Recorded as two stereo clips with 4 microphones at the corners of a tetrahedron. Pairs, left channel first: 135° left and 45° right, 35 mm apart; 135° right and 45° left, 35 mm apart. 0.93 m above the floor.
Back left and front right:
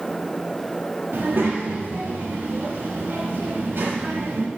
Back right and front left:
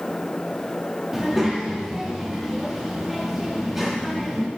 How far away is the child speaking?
About 0.9 m.